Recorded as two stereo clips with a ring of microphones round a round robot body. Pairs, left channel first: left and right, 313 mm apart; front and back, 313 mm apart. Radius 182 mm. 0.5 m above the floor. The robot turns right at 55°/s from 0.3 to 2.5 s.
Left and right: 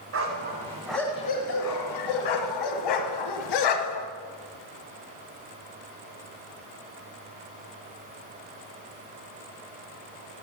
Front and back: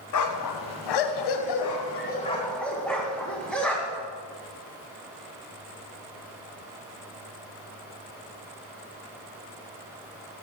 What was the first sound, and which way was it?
A dog barking, 35° right.